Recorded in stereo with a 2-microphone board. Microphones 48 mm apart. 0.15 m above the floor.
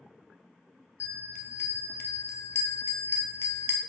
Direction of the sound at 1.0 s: 65° left (ahead or behind).